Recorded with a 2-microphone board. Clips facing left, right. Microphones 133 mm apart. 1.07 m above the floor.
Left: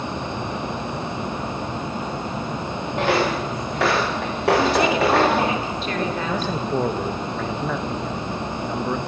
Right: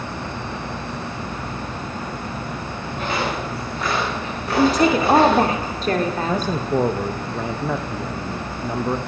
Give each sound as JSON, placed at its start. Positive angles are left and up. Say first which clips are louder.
{"t": 3.0, "sound": "footsteps", "louder": "left 4 dB", "side_deg": 80, "distance_m": 7.0}
{"t": 4.6, "sound": "a woman speaking", "louder": "right 6 dB", "side_deg": -40, "distance_m": 3.0}
{"t": 6.3, "sound": "a man speaking", "louder": "right 2 dB", "side_deg": -10, "distance_m": 1.2}